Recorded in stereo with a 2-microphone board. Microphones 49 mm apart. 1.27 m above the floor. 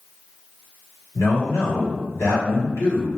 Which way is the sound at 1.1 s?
75° left (ahead or behind).